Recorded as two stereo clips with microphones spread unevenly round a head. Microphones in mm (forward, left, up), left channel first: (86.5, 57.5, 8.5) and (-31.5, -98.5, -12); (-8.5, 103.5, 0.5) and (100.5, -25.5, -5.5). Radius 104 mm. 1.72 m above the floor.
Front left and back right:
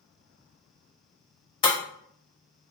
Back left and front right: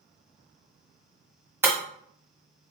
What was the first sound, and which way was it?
Breaking glass, 20° left.